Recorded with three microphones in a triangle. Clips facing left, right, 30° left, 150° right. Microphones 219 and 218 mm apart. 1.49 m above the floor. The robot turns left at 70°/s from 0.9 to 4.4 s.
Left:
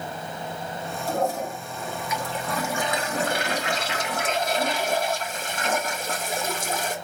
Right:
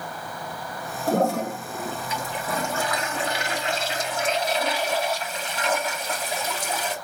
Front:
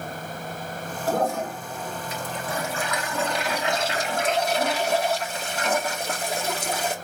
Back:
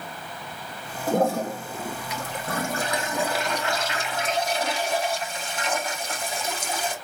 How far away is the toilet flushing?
About 2.5 m.